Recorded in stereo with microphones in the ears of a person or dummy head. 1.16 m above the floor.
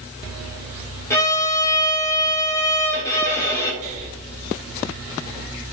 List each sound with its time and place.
1.1 s a violin: 15° left (ahead or behind), 1.4 m
3.8 s breathing: 45° right (ahead or behind), 1.7 m